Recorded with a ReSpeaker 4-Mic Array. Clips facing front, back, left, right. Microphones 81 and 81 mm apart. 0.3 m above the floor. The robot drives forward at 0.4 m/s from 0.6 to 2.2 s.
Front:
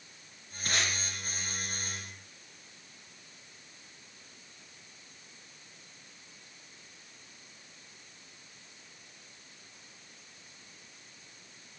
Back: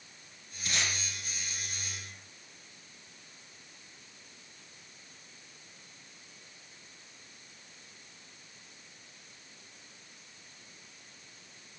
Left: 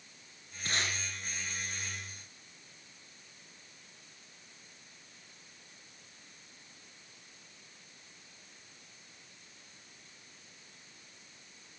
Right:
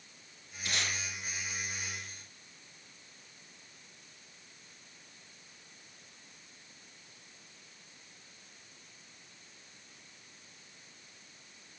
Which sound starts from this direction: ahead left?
Tape being pulled, at 0.7 s.